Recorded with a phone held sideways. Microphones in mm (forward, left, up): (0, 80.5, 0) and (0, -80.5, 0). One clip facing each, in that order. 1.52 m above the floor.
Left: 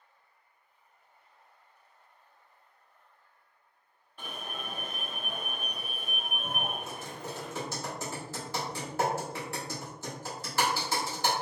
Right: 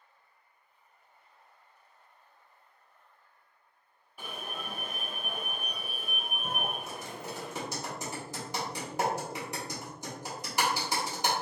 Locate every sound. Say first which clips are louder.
4.2 s an alarm: even; 10° right (ahead or behind), 0.6 m
6.9 s typing on a keyboard: even; 15° right (ahead or behind), 1.2 m